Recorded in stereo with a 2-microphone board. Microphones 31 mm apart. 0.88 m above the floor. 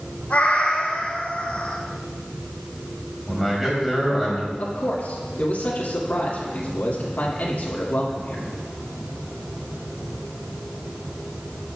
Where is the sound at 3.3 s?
5° right (ahead or behind), 4 m.